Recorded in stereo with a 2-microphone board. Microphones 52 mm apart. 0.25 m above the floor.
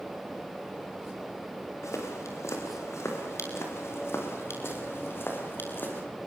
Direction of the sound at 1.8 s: 70° left (ahead or behind).